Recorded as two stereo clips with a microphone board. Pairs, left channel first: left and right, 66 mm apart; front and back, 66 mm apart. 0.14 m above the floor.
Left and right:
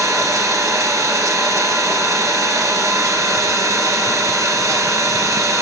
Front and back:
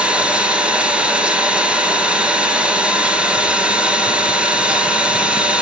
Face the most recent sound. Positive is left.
turn(degrees=-110)